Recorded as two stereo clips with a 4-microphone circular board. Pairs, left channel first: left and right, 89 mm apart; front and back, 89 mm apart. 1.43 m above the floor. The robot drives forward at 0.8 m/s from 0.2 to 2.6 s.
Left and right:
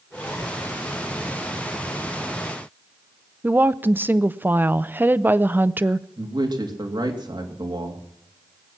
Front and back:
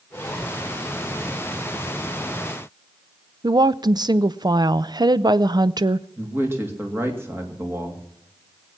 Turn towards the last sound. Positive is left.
turn(degrees=-120)